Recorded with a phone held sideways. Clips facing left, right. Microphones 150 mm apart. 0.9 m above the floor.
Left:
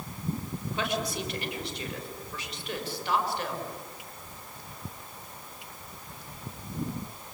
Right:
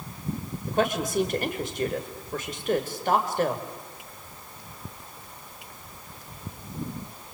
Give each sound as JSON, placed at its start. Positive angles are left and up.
{"t": 0.7, "sound": "a woman speaking", "side_deg": -50, "distance_m": 3.5}